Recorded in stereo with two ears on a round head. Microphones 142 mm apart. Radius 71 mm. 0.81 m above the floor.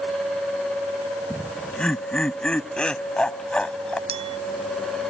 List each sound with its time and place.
1.3 s laughter: 5° left (ahead or behind)
4.1 s a clink: 35° right (ahead or behind)